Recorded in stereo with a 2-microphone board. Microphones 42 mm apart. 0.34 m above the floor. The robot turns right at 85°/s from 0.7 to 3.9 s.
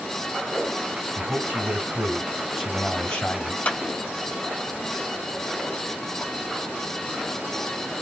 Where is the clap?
35° left (ahead or behind), 1.3 m.